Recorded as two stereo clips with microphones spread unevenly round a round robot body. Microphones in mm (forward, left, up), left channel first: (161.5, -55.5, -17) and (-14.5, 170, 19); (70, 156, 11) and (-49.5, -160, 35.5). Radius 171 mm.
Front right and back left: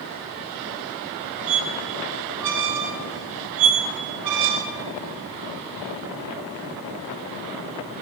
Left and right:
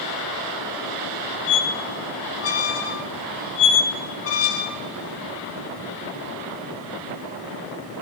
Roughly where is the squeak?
Behind left.